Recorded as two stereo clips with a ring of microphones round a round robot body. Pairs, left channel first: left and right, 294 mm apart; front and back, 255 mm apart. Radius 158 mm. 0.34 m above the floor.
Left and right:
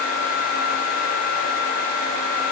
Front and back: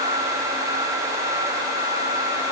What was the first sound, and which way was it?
Only background noise.